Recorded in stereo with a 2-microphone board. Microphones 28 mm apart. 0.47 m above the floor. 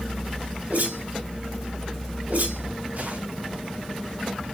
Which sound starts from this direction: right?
A whoosh, at 0.7 s.